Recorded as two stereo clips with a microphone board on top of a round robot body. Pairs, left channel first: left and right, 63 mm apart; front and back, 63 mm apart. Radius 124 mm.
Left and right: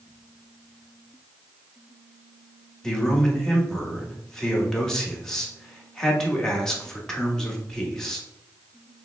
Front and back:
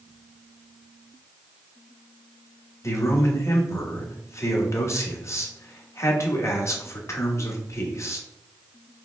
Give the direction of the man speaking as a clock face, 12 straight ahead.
12 o'clock.